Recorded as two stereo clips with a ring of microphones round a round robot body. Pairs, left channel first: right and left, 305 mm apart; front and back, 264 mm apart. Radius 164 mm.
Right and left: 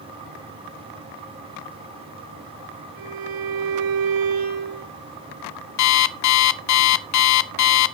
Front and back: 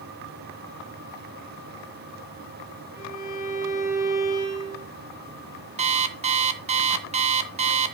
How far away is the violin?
About 3.5 m.